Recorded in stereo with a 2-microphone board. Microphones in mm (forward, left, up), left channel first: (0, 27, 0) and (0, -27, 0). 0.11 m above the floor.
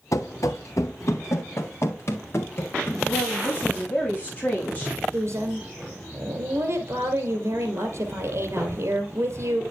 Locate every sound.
0.1 s running footsteps: 85° left, 1.1 m; by 2.9 s 45° left (ahead or behind), 3 m
3.0 s a woman speaking: 30° left (ahead or behind), 7.5 m
5.1 s a woman speaking: 50° right (ahead or behind), 2.5 m